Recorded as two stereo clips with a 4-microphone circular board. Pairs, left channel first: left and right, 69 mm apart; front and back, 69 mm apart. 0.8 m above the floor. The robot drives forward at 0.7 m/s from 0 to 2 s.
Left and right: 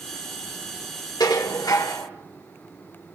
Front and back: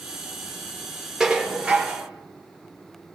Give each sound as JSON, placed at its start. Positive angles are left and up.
{"t": 1.2, "sound": "dishes clattering", "azimuth_deg": 95, "distance_m": 1.4}